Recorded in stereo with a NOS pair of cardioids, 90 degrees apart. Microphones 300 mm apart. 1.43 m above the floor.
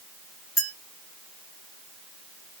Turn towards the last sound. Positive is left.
turn(degrees=-5)